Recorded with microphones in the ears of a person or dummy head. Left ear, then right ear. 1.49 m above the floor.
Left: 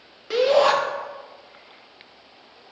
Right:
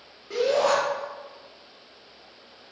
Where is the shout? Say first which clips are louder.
Left 5 dB; 65° left (ahead or behind), 0.8 m.